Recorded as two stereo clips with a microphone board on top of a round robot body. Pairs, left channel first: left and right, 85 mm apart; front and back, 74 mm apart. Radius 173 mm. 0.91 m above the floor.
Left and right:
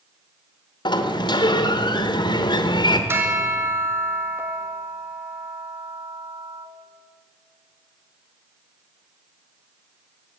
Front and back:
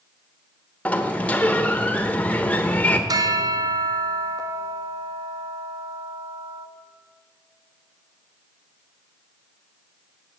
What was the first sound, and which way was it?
A sliding door, 70° left.